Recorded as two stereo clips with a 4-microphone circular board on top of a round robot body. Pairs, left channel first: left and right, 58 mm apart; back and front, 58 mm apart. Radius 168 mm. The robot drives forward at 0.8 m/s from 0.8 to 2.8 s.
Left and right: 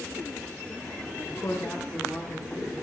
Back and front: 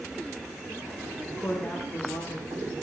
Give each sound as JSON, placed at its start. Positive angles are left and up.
{"t": 1.2, "sound": "a woman speaking", "azimuth_deg": 115, "distance_m": 1.1}